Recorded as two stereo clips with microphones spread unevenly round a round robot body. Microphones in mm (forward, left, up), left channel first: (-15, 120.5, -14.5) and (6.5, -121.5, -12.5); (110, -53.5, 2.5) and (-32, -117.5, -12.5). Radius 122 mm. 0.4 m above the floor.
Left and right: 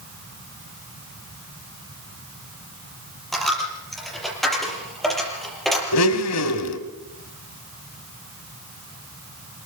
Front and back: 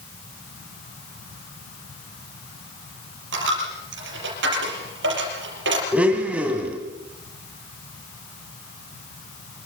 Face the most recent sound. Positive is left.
turn(degrees=120)